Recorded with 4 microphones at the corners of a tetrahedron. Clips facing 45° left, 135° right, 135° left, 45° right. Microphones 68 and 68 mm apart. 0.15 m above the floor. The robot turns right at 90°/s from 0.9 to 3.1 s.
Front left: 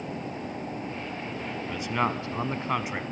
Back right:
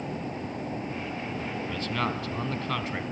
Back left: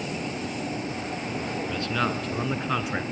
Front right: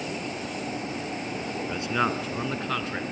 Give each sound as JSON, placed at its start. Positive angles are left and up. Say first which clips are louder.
{"t": 1.7, "sound": "a man speaking", "louder": "front left 4 dB, front right 2 dB", "azimuth_deg": -15, "distance_m": 1.2}